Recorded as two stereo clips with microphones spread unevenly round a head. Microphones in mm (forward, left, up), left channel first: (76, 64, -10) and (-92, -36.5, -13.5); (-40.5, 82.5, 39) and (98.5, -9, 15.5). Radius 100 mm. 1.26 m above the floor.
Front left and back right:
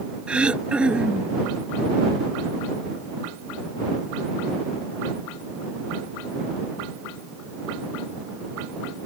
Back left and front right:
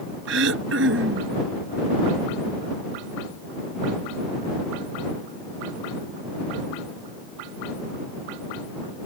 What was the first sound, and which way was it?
Throat clearing, 65° right.